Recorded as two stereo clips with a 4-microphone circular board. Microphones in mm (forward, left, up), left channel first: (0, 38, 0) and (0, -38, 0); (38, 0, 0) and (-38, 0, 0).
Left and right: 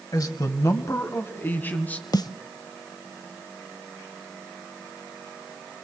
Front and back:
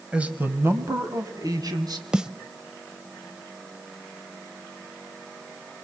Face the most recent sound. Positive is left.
turn(degrees=100)